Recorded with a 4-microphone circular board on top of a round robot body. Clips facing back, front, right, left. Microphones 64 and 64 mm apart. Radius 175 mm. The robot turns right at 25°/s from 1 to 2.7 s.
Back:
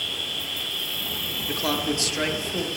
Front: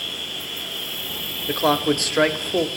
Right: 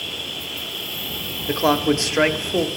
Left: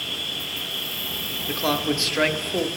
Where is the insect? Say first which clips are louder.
Even, even; 85° left, 3 m; by 2.8 s 125° left, 3 m.